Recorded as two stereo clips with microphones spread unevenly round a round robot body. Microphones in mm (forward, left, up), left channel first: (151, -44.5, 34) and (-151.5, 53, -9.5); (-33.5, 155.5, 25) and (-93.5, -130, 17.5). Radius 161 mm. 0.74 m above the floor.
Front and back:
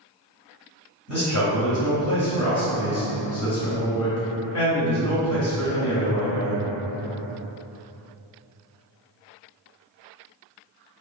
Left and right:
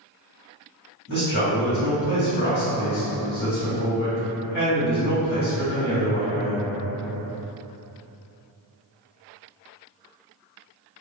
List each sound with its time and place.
1.1 s a man speaking: 25° left, 1.7 m